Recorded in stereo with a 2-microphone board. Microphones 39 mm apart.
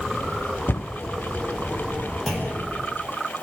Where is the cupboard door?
85° left, 0.6 m.